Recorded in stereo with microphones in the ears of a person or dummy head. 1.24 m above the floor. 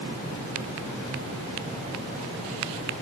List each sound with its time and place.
Only background noise.